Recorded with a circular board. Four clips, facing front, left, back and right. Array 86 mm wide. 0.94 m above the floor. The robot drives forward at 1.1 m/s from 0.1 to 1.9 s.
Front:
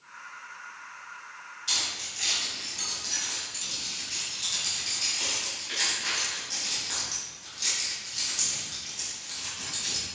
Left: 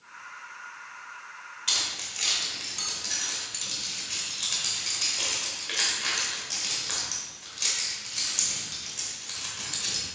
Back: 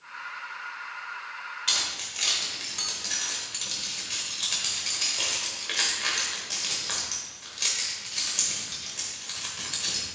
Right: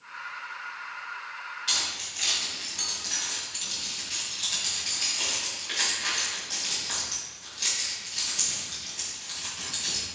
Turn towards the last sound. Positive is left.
turn(degrees=160)